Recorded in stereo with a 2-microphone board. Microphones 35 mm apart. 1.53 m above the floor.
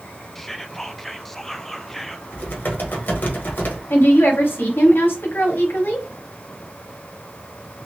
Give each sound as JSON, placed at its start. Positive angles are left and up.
{"t": 0.3, "sound": "whispering", "side_deg": 10, "distance_m": 0.5}
{"t": 2.3, "sound": "typing on a keyboard", "side_deg": 70, "distance_m": 1.4}
{"t": 3.9, "sound": "a woman speaking", "side_deg": 85, "distance_m": 1.3}